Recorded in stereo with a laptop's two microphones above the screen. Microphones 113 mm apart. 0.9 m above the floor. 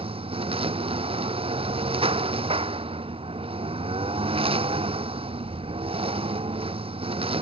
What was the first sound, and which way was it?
A lawn mower, 65° right (ahead or behind).